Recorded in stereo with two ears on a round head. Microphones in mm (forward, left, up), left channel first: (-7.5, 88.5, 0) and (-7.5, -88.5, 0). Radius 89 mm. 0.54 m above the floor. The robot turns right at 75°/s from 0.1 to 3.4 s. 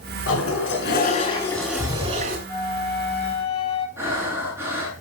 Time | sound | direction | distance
0.3 | a toilet flushing | 75° left | 4.5 m
2.5 | a flute | 15° left | 6 m
4.0 | breathing | 10° right (ahead or behind) | 6.5 m